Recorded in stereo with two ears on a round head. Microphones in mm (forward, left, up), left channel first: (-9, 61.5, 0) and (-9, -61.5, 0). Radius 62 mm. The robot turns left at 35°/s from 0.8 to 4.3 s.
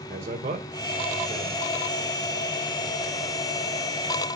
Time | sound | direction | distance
0.1 | a man speaking | 50° right (ahead or behind) | 1.8 m